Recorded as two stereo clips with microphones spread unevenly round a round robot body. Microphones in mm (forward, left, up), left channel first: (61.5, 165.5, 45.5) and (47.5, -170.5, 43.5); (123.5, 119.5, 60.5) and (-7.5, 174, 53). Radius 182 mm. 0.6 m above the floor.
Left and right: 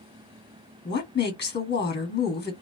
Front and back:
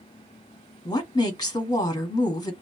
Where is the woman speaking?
35° left, 1.3 m.